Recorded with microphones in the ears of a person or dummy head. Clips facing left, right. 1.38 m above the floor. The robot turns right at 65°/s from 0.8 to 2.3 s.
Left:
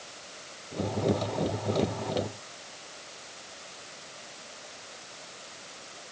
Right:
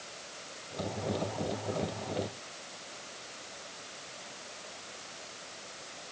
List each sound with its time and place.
Only background noise.